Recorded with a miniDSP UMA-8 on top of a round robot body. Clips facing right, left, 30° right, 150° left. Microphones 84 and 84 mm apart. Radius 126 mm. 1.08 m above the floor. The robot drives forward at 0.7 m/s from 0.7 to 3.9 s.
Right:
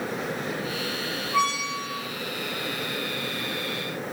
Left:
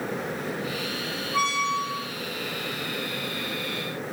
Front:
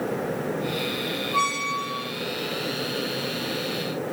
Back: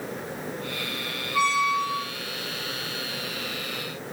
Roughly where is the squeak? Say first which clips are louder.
Left 1 dB, back 4 dB; ahead right.